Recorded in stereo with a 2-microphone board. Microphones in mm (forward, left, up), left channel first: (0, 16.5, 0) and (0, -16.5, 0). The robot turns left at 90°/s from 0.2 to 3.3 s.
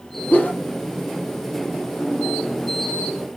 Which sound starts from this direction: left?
A whoosh, at 0.3 s.